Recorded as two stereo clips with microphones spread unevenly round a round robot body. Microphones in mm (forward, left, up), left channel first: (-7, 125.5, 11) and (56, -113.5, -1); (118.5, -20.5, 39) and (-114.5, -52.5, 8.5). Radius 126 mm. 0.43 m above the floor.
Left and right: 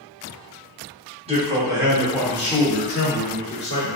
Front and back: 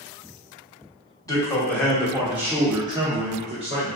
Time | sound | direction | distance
1.3 | a man speaking | 65° right | 1.1 m